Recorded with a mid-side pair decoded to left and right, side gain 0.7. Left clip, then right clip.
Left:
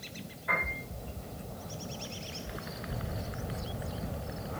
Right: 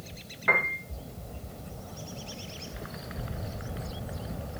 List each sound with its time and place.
0.5 s a piano: 60° right, 1.8 m